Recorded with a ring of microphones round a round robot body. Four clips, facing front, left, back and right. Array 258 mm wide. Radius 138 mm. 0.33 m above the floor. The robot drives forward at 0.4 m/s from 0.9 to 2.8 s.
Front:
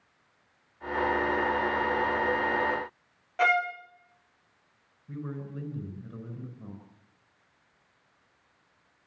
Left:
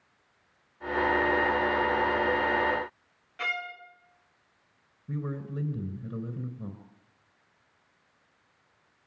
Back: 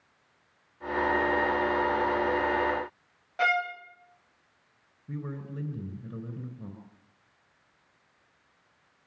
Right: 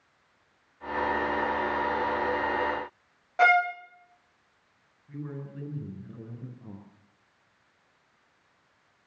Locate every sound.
3.4 s a violin: 85° right, 2.5 m
5.1 s a man speaking: 115° left, 5 m